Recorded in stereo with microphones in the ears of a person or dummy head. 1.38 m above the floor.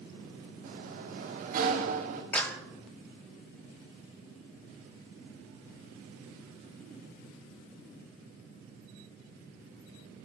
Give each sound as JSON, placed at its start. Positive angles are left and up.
{"t": 0.6, "sound": "a sliding door", "side_deg": -55, "distance_m": 1.9}
{"t": 2.3, "sound": "a clap", "side_deg": 10, "distance_m": 1.2}